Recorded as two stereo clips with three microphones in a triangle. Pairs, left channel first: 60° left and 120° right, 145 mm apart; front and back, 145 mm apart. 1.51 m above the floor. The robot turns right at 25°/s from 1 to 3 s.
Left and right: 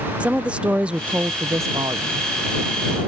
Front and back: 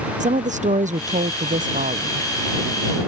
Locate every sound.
0.2 s a woman speaking: 160° left; by 2.3 s 170° right